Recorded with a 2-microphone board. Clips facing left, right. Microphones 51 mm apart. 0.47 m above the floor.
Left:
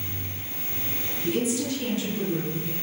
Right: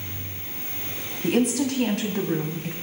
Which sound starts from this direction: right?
A woman speaking, at 1.2 s.